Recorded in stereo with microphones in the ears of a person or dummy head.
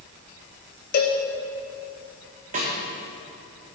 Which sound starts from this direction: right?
A snare drum, at 2.5 s.